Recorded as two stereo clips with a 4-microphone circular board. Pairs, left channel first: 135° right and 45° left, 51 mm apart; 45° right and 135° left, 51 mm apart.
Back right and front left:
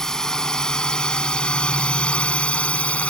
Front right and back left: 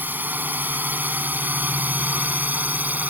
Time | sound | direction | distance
0.0 | a drone | 150° left | ?